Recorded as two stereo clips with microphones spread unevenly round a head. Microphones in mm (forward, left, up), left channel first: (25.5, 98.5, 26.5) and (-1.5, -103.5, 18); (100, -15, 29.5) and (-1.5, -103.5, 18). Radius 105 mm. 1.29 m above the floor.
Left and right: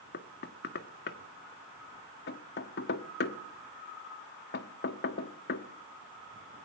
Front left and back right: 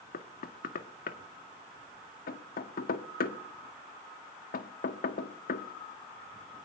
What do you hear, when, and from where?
0.1 s knocking: 45° left, 1.7 m